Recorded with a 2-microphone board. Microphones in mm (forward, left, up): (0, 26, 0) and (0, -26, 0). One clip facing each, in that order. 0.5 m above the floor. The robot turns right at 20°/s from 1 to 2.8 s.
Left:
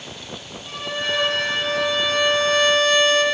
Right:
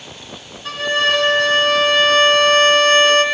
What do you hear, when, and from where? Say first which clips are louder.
0.7 s a violin: right 9 dB; 90° right, 4.5 m; by 3.2 s 55° right, 4.5 m